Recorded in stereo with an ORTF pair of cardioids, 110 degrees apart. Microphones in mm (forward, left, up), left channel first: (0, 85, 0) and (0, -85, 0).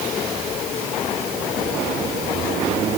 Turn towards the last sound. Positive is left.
No sound to turn to.